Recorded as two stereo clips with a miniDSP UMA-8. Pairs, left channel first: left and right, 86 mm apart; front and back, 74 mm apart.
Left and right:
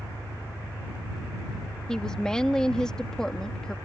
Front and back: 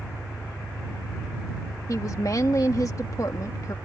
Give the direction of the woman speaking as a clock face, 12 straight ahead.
12 o'clock.